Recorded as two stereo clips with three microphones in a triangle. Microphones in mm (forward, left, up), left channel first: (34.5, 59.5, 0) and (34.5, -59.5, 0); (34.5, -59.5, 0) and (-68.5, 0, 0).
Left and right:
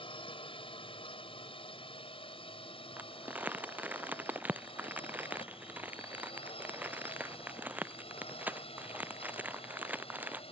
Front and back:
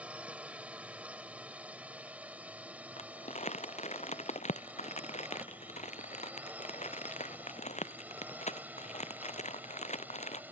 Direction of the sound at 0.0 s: 75° left.